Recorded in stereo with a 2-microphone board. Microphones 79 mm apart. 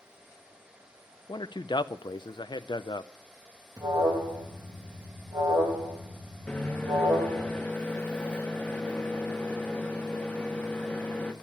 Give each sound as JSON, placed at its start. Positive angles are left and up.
{"t": 1.3, "sound": "a man speaking", "side_deg": 70, "distance_m": 0.5}
{"t": 3.8, "sound": "an alarm", "side_deg": -55, "distance_m": 3.0}
{"t": 6.5, "sound": "a microwave", "side_deg": 15, "distance_m": 1.3}